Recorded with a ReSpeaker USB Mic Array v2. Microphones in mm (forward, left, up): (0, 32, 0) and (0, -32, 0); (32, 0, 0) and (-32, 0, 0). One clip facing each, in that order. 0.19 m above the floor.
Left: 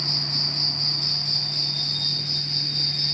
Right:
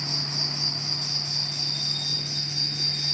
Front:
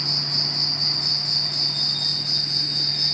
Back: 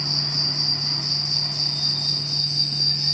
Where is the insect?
10° right, 1.6 m.